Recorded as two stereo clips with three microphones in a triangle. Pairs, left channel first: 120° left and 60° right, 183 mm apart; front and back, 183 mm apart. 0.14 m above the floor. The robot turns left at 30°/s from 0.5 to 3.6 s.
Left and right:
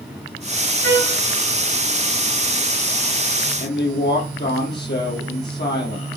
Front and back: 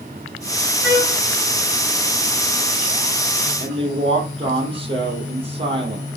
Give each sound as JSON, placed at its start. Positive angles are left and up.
{"t": 0.8, "sound": "a trumpet", "azimuth_deg": -165, "distance_m": 6.0}
{"t": 3.6, "sound": "a woman speaking", "azimuth_deg": 120, "distance_m": 3.5}